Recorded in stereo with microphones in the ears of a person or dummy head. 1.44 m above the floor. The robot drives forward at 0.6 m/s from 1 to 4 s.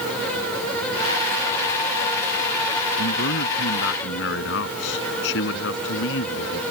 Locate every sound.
3.0 s a man speaking: 70° left (ahead or behind)